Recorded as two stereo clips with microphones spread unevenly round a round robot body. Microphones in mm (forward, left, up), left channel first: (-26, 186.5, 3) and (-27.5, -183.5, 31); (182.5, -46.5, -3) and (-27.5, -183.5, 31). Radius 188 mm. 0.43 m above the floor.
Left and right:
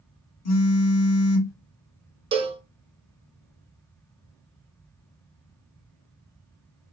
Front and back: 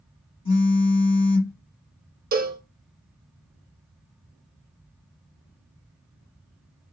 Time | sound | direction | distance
0.5 | a phone buzzing | 80° left | 0.9 m
2.3 | a cowbell | 160° right | 0.7 m